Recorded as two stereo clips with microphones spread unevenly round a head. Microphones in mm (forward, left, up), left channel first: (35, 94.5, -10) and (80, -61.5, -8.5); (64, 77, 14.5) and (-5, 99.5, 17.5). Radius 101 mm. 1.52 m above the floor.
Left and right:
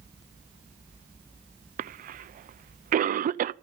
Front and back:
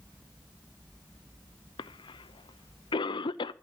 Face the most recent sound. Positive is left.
turn(degrees=-35)